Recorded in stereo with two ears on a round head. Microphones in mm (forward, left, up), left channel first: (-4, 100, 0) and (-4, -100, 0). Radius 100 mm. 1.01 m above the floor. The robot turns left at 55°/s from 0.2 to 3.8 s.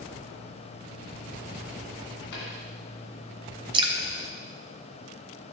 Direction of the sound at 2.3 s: 60° left (ahead or behind).